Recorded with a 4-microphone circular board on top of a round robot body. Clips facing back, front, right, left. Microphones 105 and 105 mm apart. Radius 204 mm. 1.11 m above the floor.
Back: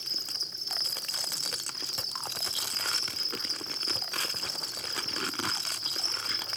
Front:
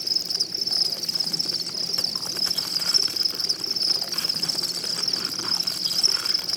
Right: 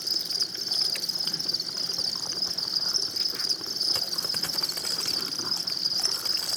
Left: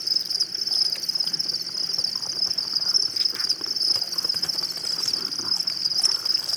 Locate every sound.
0.0 s an insect: 10° right, 1.1 m